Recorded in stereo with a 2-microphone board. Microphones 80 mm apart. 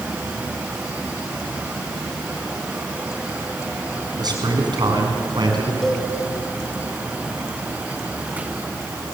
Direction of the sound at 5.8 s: 5° left (ahead or behind).